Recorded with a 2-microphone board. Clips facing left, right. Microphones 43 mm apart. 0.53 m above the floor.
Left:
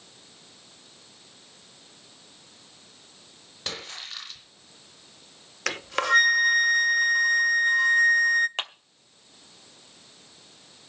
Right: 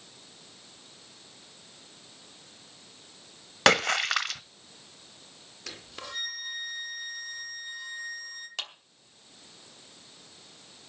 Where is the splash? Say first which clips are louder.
Right 15 dB; 80° right, 1.0 m.